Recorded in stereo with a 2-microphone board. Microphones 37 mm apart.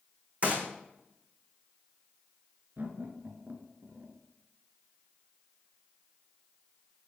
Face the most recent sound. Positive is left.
turn(degrees=-55)  # may be behind; listen again after turning